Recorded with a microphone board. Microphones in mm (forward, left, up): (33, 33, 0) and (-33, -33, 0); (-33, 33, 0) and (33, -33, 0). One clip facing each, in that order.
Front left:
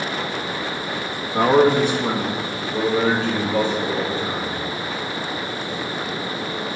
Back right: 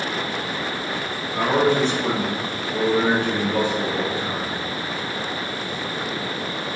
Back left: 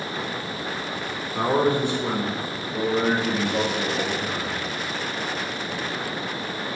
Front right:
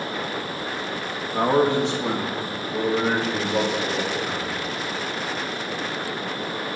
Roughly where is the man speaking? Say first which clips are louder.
Front left 4 dB, front right 2 dB; ahead.